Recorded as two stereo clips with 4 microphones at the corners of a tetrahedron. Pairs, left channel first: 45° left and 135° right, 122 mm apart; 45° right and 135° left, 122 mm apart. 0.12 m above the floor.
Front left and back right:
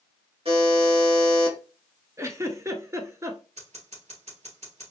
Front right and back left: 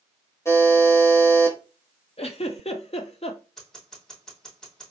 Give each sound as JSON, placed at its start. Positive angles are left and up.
{"t": 0.5, "sound": "a buzzer", "azimuth_deg": -110, "distance_m": 1.6}
{"t": 2.2, "sound": "a giggle", "azimuth_deg": -70, "distance_m": 0.6}
{"t": 3.6, "sound": "scissors", "azimuth_deg": -130, "distance_m": 2.5}